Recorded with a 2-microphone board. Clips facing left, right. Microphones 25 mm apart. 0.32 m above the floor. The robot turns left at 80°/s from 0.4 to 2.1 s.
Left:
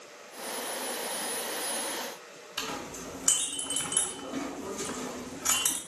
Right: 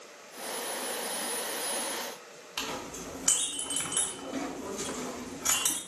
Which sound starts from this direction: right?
A clink, at 2.6 s.